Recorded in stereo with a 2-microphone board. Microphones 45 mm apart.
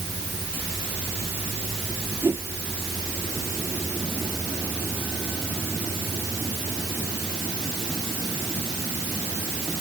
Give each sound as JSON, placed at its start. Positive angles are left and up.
{"t": 2.2, "sound": "a whoosh", "side_deg": -60}